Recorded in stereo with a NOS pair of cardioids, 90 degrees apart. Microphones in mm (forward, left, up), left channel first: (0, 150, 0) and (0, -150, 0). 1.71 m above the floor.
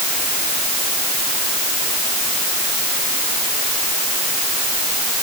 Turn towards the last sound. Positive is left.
No sound to turn to.